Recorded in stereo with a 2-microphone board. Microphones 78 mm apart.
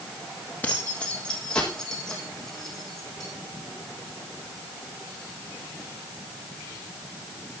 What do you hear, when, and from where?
0.6 s keys jangling: 25° left (ahead or behind), 3 m; by 3.3 s 5° left (ahead or behind), 6.5 m